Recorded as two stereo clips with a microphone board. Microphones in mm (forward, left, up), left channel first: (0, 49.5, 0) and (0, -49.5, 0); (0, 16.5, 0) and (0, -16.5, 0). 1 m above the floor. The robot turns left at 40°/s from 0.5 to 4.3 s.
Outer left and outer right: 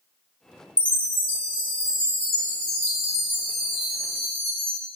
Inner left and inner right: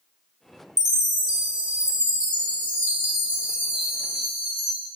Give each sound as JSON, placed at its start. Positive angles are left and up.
{"t": 0.8, "sound": "a chime", "azimuth_deg": -10, "distance_m": 1.6}